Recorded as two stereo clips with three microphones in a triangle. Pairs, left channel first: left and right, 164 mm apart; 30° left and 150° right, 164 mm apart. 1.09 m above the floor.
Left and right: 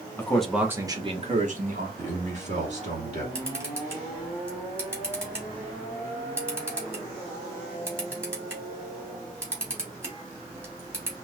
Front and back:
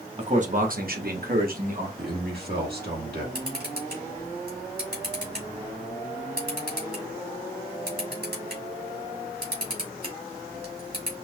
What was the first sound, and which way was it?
A man speaking, 170° left.